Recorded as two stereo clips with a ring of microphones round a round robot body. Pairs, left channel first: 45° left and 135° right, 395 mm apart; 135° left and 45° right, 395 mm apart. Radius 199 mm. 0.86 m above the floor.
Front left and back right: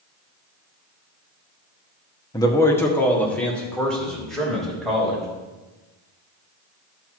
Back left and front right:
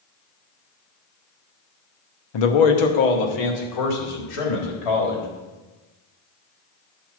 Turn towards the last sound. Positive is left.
turn(degrees=135)